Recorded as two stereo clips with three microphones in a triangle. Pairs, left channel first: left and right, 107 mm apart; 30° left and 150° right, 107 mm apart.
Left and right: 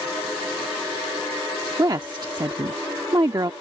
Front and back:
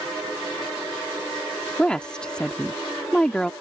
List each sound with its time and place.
1.8 s a woman speaking: 50° right